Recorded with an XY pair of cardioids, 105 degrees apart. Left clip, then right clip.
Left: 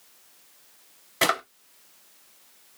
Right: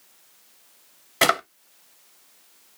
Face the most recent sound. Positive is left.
turn(degrees=-30)